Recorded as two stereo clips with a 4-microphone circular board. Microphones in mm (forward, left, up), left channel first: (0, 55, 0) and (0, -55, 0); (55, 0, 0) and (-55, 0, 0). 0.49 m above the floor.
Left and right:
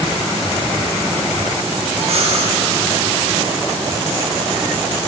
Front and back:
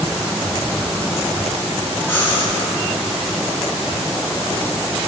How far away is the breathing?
About 1.2 m.